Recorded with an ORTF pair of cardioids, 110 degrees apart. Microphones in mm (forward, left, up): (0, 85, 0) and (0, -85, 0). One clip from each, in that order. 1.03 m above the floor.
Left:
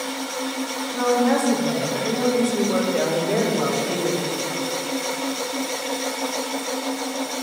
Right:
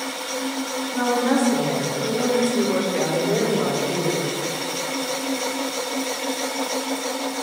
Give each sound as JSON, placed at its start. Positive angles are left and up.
{"t": 0.9, "sound": "a woman speaking", "azimuth_deg": -15, "distance_m": 2.5}